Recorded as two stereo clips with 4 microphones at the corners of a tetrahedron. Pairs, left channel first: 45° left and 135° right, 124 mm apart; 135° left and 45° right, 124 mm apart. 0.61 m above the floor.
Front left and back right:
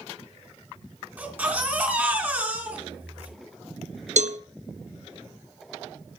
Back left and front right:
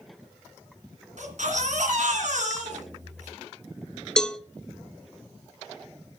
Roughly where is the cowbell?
Behind right.